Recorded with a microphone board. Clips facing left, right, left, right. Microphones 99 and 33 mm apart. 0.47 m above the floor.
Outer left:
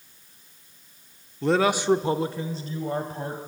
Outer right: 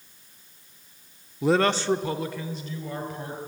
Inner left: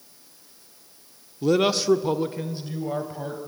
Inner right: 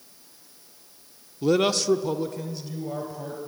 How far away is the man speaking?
About 0.7 m.